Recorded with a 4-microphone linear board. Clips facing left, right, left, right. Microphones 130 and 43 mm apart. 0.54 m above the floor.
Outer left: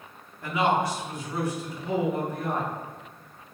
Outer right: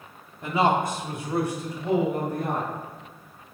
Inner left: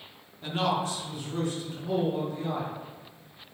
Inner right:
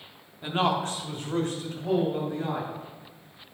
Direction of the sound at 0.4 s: 20° right (ahead or behind).